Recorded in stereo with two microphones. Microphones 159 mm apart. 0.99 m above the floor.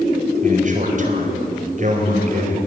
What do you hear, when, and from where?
0.4 s a man speaking: 50° right (ahead or behind), 4.5 m